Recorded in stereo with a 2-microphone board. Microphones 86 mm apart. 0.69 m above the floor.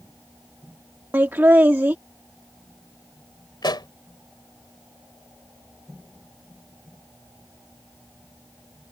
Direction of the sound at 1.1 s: 25° right (ahead or behind).